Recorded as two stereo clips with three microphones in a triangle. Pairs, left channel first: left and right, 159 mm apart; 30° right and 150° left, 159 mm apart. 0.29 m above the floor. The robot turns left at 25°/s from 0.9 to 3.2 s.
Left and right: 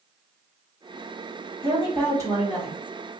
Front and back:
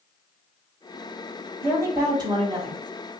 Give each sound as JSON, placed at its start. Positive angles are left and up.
{"t": 1.6, "sound": "a woman speaking", "azimuth_deg": -140, "distance_m": 1.7}